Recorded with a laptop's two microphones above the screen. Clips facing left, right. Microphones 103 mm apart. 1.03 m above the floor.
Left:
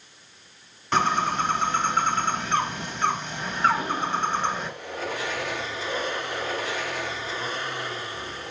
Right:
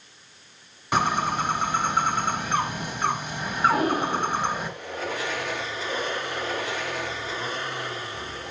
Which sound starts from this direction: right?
Breathing, at 3.7 s.